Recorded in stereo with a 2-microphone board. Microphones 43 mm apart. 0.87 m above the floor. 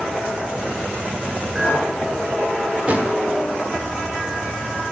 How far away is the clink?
About 1.9 m.